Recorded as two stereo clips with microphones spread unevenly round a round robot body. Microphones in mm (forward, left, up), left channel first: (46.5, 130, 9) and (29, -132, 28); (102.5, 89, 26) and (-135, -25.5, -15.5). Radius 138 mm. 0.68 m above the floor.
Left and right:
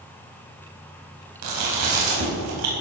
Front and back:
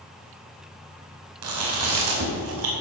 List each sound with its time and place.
1.4 s chewing: 125° right, 5 m